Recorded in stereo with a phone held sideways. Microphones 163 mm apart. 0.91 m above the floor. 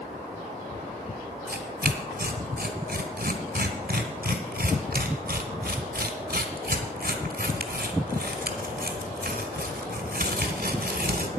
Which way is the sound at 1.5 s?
70° right (ahead or behind).